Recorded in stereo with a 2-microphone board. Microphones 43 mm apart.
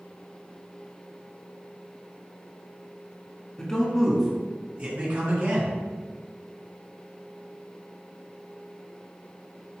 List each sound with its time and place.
3.6 s a man speaking: 20° left (ahead or behind), 2.5 m; by 5.8 s 55° right (ahead or behind), 3 m